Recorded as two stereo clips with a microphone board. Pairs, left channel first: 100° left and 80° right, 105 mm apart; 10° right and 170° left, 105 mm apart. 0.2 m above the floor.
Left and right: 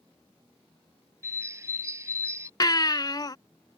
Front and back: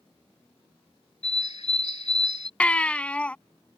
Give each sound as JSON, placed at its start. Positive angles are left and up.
{"t": 1.2, "sound": "a bird", "azimuth_deg": -15}
{"t": 2.6, "sound": "a baby crying", "azimuth_deg": 65}